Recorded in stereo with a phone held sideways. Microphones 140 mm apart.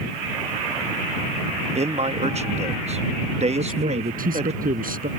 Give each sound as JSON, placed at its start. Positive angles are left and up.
{"t": 1.8, "sound": "a man speaking", "side_deg": -50}
{"t": 3.5, "sound": "a man speaking", "side_deg": -80}